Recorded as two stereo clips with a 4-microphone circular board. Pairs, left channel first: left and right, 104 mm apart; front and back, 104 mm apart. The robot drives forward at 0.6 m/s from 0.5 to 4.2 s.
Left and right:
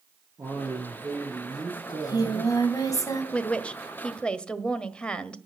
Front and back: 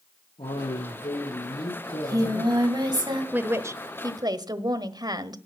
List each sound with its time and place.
0.4 s a man speaking: 25° right, 9 m; by 2.6 s 30° right, 8 m
1.9 s singing: 130° left, 2.5 m; by 3.2 s 140° left, 3 m
3.3 s a woman speaking: 140° left, 1.0 m; by 5.4 s 165° left, 1.2 m